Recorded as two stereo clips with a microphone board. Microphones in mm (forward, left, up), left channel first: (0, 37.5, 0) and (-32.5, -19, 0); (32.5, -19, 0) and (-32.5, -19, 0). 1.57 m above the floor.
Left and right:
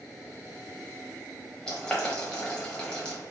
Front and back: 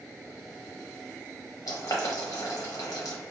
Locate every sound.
1.7 s boiling: 15° right, 0.8 m